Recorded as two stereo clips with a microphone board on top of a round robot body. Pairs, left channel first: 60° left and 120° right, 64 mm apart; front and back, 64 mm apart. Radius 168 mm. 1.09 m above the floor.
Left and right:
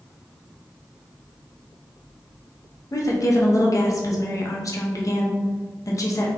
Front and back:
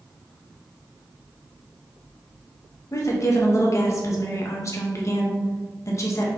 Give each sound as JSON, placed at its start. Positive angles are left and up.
{"t": 2.9, "sound": "a woman speaking", "azimuth_deg": 35, "distance_m": 1.0}